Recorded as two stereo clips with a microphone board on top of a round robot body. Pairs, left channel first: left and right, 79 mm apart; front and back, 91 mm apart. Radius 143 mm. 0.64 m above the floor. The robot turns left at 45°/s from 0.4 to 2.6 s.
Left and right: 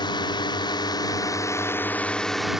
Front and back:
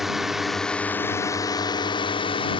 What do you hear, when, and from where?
0.0 s a drone: 95° left; by 2.6 s 5° right